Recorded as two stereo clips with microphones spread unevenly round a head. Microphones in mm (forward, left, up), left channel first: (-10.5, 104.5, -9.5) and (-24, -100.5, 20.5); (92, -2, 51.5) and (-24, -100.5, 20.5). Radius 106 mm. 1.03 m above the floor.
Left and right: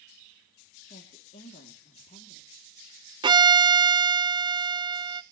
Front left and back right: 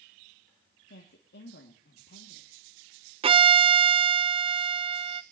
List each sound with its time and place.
0.9 s a woman speaking: 30° left, 2.0 m
3.2 s a violin: 165° right, 0.6 m